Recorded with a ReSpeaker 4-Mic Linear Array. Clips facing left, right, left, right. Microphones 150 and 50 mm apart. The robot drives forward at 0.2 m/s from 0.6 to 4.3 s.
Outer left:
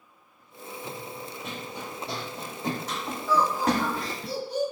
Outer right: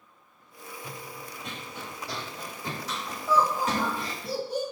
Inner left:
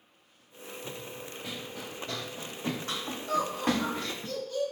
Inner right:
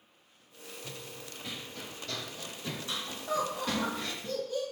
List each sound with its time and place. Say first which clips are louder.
0.8 s running footsteps: outer left 4 dB, inner left 4 dB; 10° right (ahead or behind), 0.8 m; by 4.3 s 80° left, 1.0 m
3.3 s laughter: outer left 1 dB, inner left 3 dB; 25° right (ahead or behind), 1.0 m